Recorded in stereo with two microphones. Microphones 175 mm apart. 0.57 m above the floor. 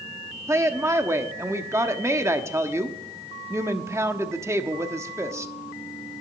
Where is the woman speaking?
15° right (ahead or behind), 1.0 m.